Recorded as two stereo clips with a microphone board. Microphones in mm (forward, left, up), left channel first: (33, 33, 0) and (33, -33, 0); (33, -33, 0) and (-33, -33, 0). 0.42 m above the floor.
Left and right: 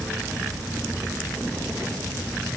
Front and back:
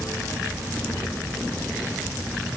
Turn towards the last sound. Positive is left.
No sound to turn to.